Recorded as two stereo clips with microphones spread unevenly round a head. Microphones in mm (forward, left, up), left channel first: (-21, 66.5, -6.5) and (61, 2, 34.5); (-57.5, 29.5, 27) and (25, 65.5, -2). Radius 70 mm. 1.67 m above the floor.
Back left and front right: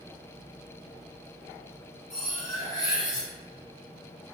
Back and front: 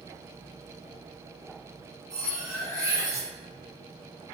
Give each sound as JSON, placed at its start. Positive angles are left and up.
{"t": 2.1, "sound": "cutlery clinking", "azimuth_deg": -55, "distance_m": 1.4}